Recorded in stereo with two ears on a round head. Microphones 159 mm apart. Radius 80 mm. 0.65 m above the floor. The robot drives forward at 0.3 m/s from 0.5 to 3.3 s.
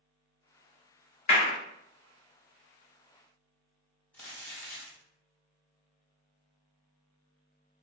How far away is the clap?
About 1.6 m.